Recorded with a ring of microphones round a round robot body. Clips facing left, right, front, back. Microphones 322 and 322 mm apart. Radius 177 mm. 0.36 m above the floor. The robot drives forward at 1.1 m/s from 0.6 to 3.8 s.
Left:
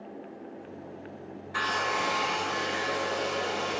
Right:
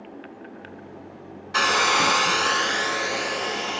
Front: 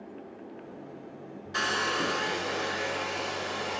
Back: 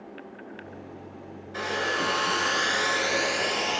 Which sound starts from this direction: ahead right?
A hair dryer, at 1.5 s.